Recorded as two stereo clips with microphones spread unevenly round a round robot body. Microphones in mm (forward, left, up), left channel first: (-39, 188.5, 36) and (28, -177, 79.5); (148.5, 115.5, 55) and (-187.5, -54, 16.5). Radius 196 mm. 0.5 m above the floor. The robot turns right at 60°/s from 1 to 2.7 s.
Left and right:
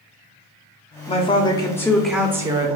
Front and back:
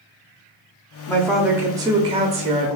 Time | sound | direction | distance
1.1 | a woman speaking | 115° left | 0.7 m